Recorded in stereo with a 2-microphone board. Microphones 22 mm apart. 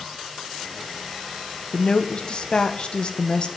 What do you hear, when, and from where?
1.7 s a woman speaking: 45° left (ahead or behind), 0.9 m